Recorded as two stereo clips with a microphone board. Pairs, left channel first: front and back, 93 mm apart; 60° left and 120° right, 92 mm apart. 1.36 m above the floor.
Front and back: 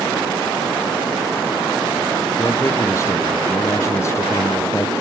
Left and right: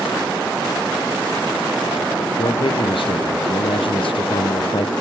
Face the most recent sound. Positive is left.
turn(degrees=60)